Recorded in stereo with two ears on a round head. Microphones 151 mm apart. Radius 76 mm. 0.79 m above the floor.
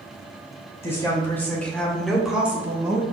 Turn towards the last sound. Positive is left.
turn(degrees=-25)  # may be behind; listen again after turning